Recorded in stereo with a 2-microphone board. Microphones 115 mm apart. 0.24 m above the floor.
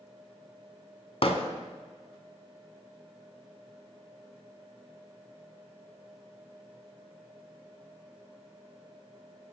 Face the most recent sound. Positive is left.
turn(degrees=60)  # may be behind; listen again after turning